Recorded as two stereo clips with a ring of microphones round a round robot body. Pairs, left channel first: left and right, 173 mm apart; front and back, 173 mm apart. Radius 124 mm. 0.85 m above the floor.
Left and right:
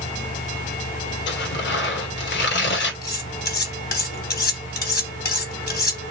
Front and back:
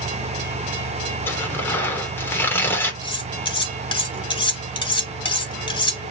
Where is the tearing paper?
80° left, 3 m.